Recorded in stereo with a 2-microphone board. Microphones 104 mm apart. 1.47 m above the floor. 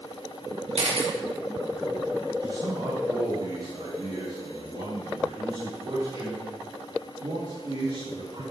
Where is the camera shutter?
75° right (ahead or behind), 1.9 m.